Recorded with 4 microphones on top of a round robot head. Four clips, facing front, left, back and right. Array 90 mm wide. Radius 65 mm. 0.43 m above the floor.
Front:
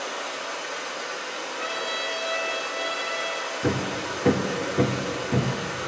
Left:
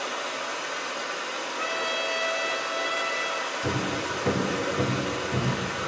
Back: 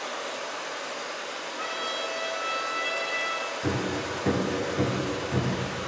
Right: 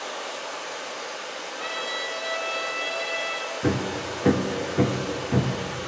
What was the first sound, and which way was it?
Running water, 75° left.